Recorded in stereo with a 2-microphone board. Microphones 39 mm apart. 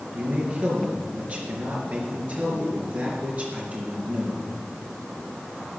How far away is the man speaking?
About 5 m.